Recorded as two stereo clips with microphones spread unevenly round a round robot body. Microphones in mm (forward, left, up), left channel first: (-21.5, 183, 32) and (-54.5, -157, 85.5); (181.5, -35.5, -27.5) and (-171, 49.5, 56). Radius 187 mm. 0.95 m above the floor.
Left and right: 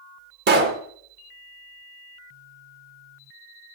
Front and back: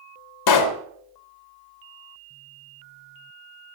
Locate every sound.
0.5 s a pop: 30° right, 0.6 m